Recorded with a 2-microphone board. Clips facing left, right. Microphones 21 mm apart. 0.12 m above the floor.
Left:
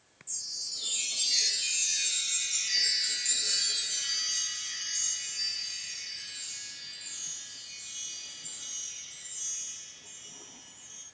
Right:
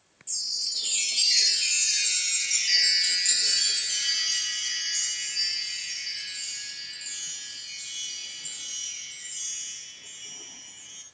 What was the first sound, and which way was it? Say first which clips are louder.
A chime: right 8 dB; 50° right (ahead or behind).